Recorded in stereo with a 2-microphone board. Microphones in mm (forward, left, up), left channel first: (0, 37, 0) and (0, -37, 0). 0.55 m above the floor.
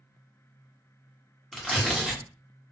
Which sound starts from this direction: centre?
Tearing paper, at 1.5 s.